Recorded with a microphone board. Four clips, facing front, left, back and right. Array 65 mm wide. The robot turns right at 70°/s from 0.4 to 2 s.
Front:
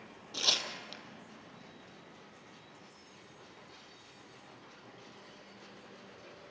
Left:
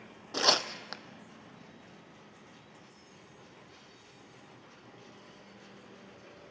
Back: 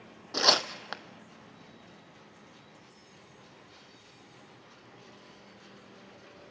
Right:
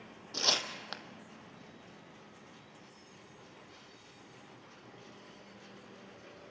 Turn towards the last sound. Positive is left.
turn(degrees=-110)